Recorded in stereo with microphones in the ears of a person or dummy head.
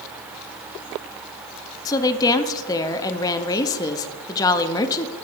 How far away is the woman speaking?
About 0.5 m.